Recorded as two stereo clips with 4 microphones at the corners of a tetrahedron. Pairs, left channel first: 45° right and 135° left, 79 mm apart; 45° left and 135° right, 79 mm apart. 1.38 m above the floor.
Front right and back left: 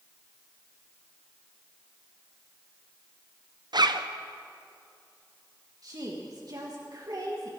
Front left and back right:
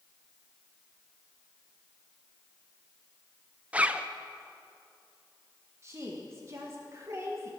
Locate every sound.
3.7 s a zipper: 155° left, 0.5 m
5.8 s a woman speaking: 170° left, 1.5 m